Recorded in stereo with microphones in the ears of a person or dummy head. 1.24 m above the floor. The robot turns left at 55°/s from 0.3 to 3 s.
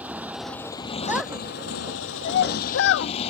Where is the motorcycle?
175° right; by 3.3 s 35° left.